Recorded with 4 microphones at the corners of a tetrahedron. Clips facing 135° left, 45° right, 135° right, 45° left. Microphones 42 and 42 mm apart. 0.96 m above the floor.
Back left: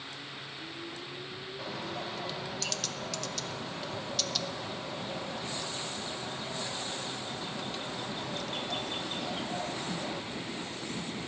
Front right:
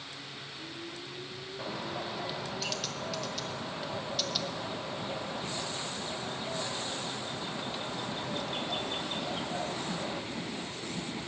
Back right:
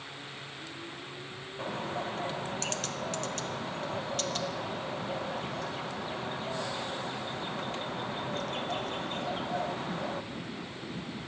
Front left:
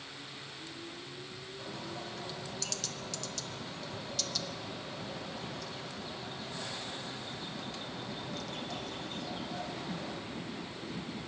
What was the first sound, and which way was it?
A bird, 120° right.